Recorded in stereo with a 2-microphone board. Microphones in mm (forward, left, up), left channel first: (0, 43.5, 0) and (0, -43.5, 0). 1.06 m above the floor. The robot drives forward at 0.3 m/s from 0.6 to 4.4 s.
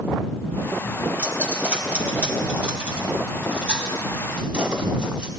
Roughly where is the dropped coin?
Centre.